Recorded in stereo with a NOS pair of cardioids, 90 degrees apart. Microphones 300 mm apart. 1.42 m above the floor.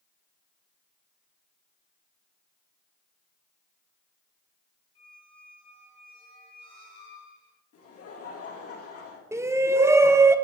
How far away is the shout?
About 0.6 m.